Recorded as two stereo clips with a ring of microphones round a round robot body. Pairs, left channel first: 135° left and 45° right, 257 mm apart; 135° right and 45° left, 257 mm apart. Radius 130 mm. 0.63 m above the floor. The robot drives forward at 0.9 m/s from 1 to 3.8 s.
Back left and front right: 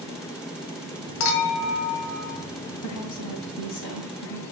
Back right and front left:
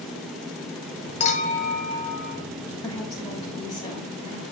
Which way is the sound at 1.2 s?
160° left.